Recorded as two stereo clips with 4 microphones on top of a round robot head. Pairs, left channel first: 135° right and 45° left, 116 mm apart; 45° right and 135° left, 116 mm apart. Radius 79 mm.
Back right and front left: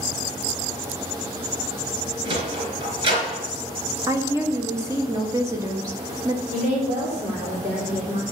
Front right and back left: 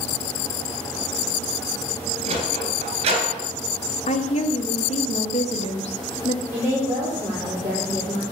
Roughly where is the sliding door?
Left.